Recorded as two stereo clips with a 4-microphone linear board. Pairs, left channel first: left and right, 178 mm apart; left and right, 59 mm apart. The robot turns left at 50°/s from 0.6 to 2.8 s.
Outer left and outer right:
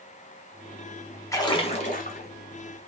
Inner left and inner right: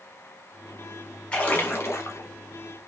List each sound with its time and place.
1.3 s a splash: 165° left, 0.8 m; by 2.3 s 115° left, 0.8 m